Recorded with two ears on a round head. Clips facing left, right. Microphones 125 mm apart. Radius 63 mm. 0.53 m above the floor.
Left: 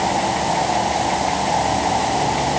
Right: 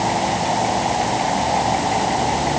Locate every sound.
Only background noise.